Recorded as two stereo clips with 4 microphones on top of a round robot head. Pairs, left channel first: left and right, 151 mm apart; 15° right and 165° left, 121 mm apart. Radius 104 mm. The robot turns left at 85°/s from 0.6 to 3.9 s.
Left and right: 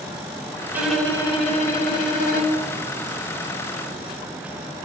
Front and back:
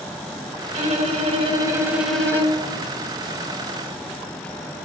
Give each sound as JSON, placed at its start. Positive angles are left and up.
{"t": 0.7, "sound": "a violin", "azimuth_deg": -165, "distance_m": 2.5}